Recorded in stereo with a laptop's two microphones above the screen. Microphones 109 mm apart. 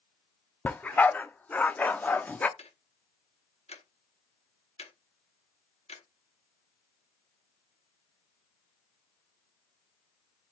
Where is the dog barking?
15° left (ahead or behind), 0.5 m.